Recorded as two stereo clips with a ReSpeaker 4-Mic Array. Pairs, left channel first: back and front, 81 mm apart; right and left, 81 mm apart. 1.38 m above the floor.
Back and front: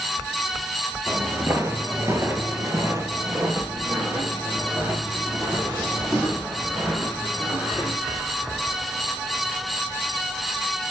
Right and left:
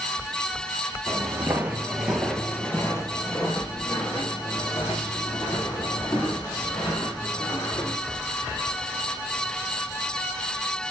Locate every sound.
1.1 s footsteps: 55° left, 2 m; by 8.0 s 80° right, 7 m